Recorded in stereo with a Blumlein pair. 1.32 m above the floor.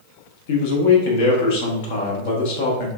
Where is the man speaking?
50° left, 1.0 m.